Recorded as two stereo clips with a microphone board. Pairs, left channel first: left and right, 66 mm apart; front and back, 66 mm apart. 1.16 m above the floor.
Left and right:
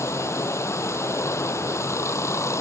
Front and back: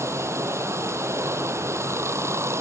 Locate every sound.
0.0 s running water: 135° left